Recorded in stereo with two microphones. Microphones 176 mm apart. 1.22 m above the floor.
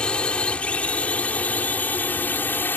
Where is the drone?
5° left (ahead or behind); by 2.8 s 10° left (ahead or behind).